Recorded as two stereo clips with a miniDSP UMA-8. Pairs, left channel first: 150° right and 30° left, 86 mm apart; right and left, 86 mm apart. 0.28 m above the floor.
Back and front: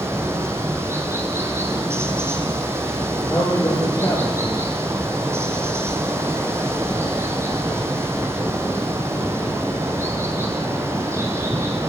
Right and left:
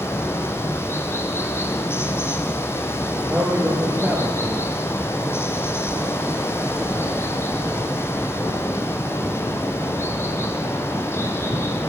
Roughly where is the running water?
Ahead right.